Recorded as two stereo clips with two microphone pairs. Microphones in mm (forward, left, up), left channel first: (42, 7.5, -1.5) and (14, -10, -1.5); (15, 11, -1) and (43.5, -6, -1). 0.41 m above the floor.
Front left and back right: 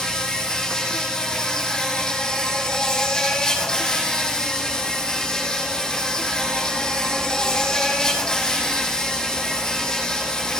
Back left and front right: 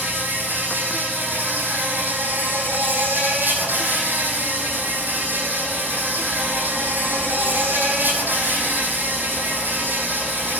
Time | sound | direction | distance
0.0 | an insect | 40° right | 4 m